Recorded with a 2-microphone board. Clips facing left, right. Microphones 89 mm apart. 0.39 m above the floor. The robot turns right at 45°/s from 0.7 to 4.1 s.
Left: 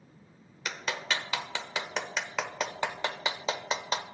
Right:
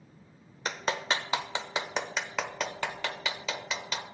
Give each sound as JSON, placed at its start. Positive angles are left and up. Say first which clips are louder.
{"t": 0.7, "sound": "a clap", "louder": "right 3 dB", "side_deg": -40, "distance_m": 0.7}